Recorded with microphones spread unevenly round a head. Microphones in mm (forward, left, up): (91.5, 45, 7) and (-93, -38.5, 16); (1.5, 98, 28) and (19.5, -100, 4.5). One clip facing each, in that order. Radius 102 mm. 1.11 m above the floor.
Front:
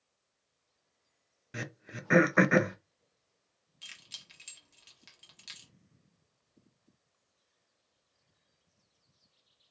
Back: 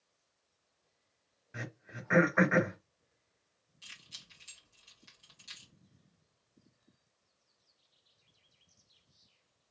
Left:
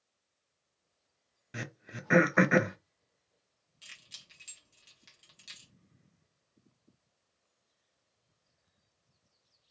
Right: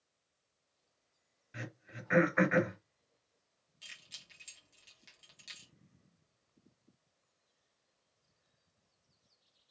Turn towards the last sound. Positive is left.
turn(degrees=5)